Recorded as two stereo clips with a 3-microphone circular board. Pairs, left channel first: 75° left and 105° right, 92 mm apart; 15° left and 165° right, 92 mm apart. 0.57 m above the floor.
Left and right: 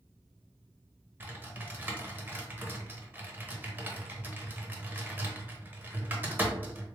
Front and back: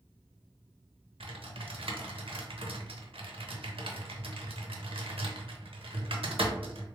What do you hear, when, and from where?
1.2 s typing on a keyboard: 170° right, 0.7 m